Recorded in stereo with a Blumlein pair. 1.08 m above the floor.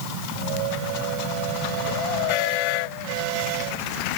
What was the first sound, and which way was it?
Only background noise.